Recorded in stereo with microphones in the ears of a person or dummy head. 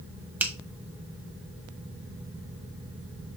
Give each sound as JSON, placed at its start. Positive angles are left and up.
{"t": 0.4, "sound": "a finger snap", "side_deg": -10, "distance_m": 1.0}